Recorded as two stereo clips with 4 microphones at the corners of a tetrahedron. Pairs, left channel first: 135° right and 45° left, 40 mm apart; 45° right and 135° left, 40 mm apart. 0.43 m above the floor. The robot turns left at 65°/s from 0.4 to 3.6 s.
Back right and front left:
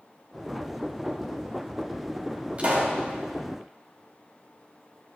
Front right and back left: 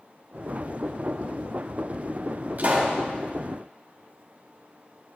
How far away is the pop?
About 2 m.